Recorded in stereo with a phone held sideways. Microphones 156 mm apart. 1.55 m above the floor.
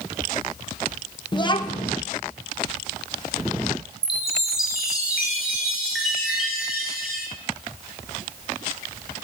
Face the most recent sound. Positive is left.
turn(degrees=-5)  # may be behind; listen again after turning